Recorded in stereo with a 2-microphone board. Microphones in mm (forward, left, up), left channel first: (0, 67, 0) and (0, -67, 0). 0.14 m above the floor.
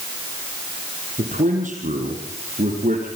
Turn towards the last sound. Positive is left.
turn(degrees=-75)  # may be behind; listen again after turning